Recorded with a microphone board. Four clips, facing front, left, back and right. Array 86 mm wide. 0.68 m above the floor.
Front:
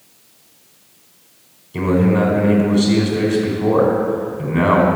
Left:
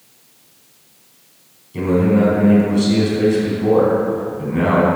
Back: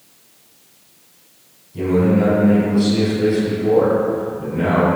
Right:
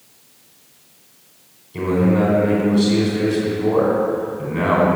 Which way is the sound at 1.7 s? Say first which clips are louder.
Left 2 dB, even; straight ahead.